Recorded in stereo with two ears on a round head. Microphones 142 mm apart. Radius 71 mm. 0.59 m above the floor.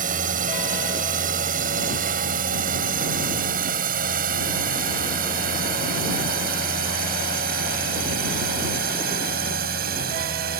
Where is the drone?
50° right (ahead or behind); by 10.6 s 60° right (ahead or behind).